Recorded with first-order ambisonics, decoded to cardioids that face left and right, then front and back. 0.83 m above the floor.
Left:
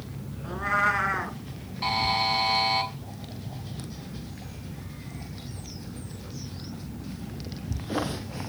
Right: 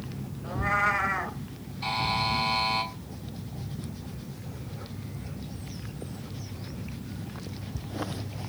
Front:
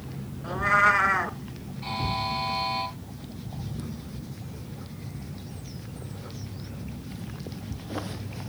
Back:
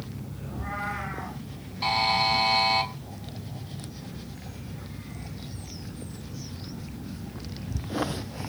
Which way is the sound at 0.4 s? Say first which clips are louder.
Left 1 dB, front 13 dB; 10° left.